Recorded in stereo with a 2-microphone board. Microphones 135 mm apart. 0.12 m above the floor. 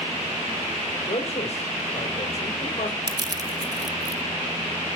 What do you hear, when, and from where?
1.1 s a man speaking: 55° left (ahead or behind), 3.5 m
3.1 s crushing: 30° right (ahead or behind), 0.7 m